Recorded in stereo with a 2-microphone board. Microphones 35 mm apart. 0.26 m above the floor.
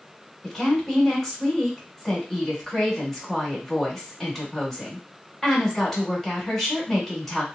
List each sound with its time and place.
0.4 s a woman speaking: 10° left (ahead or behind), 1.0 m